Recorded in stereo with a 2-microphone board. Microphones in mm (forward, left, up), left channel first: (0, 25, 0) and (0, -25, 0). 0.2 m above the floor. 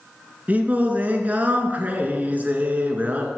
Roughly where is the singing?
Right.